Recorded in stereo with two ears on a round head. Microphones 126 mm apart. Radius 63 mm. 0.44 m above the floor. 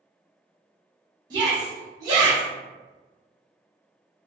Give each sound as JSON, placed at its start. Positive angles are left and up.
{"t": 1.3, "sound": "a shout", "side_deg": -25, "distance_m": 0.9}